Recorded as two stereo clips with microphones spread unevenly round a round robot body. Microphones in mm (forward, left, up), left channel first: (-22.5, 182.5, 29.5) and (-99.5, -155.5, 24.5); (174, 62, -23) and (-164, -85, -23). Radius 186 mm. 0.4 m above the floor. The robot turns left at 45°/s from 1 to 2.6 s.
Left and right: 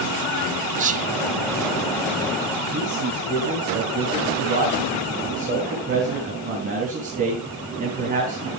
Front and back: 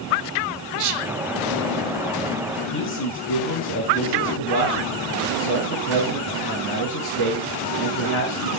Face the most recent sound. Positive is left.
turn(degrees=-35)